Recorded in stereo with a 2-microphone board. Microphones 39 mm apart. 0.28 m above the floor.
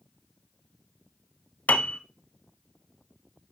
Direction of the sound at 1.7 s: 50° left (ahead or behind).